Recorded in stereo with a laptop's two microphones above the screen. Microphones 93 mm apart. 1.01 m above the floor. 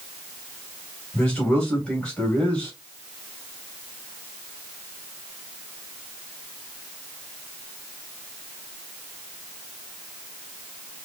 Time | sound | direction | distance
1.1 | a man speaking | 10° left (ahead or behind) | 2.5 m